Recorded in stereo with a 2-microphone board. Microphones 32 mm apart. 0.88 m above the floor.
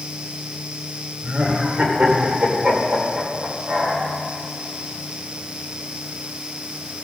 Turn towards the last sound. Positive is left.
turn(degrees=-35)  # may be behind; listen again after turning